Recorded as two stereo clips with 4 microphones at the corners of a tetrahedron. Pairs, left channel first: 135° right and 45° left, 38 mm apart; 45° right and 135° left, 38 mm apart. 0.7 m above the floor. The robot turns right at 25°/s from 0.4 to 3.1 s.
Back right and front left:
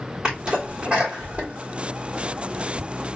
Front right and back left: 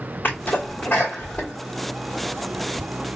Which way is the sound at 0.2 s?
15° right.